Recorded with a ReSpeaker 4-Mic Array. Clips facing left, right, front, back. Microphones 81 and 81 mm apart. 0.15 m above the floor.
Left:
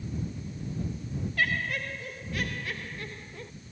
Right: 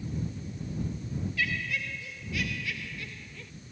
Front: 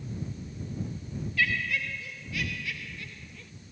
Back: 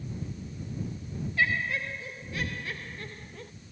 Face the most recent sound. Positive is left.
turn(degrees=140)